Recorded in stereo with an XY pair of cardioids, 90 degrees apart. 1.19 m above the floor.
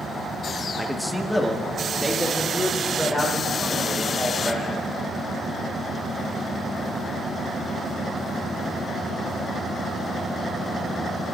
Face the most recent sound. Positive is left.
turn(degrees=5)